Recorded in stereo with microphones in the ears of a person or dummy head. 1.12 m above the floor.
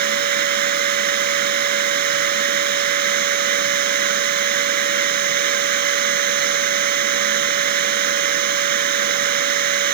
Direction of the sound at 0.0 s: 45° right (ahead or behind).